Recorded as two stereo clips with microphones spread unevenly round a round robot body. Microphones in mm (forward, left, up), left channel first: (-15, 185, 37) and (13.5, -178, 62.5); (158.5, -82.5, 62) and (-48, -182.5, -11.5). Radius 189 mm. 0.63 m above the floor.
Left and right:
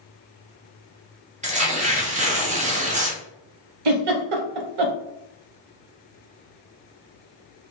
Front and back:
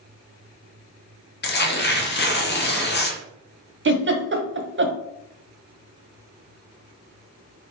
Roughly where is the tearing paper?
Ahead.